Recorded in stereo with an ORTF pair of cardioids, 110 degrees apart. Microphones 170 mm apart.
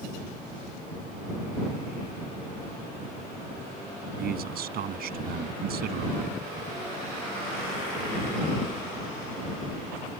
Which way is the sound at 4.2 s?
65° right.